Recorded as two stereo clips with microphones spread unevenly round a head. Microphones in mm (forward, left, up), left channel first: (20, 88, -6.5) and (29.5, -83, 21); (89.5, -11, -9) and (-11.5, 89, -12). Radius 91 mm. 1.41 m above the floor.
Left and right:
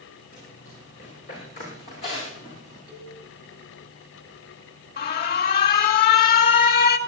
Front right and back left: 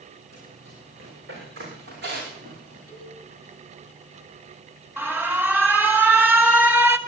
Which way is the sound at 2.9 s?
145° left.